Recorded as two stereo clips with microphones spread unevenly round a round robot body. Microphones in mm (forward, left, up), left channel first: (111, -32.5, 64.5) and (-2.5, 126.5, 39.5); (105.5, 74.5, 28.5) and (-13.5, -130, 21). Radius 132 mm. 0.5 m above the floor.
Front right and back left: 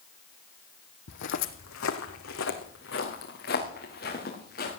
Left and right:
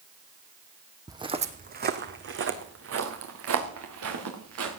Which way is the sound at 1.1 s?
45° right.